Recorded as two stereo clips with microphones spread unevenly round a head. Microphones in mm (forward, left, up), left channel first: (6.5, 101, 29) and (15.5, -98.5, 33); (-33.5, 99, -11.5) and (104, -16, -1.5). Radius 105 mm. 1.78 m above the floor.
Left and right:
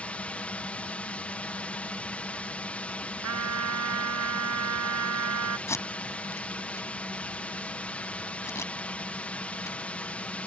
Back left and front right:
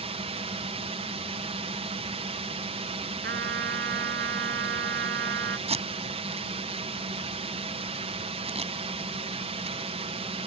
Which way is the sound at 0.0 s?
10° left.